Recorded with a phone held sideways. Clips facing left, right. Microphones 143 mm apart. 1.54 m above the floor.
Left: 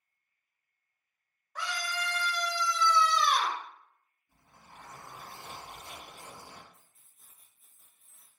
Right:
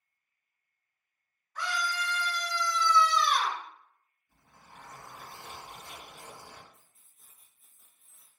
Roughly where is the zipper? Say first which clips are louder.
Even; left.